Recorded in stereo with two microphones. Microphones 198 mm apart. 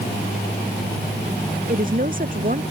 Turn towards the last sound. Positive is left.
turn(degrees=-45)  # may be behind; listen again after turning